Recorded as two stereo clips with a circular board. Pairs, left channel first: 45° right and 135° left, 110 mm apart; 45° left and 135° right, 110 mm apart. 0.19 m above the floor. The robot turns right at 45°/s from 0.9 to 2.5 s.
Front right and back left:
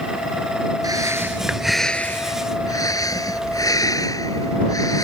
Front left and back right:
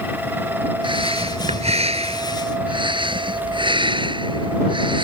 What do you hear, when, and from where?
0.8 s breathing: 170° right; by 5.0 s 100° right